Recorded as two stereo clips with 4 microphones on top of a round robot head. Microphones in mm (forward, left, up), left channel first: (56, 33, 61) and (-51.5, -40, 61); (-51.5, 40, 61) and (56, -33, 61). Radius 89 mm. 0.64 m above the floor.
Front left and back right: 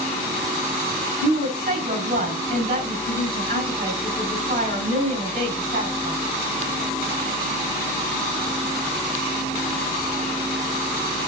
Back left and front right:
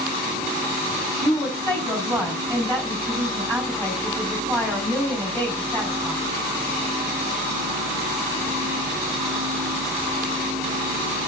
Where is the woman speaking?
135° right, 4.5 m.